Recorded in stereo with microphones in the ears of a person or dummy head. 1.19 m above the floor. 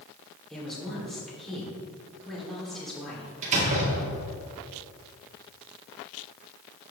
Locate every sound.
0.5 s a woman speaking: centre (ahead or behind), 3.5 m
3.4 s a door slam: 40° right (ahead or behind), 2 m